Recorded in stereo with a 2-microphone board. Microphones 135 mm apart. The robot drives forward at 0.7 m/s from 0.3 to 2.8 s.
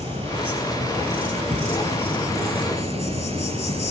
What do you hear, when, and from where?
0.0 s an insect: 45° right (ahead or behind), 9.5 m; by 3.9 s 55° right (ahead or behind), 8 m